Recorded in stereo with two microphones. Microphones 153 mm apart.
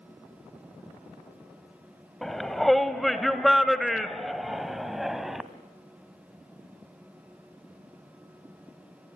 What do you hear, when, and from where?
2.2 s a shout: centre (ahead or behind), 1.2 m